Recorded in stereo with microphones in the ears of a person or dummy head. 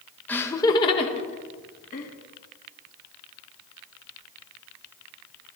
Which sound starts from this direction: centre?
Laughter, at 0.3 s.